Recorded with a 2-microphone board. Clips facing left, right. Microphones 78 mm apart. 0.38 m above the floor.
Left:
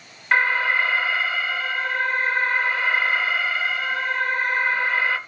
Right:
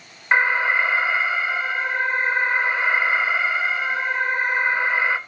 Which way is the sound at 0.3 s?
20° right (ahead or behind).